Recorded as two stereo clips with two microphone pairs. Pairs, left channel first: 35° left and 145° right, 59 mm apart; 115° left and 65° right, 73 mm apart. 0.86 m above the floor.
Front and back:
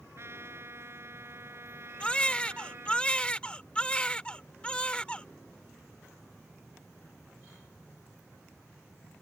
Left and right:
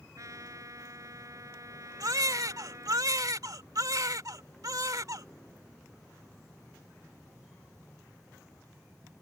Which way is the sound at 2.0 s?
35° right.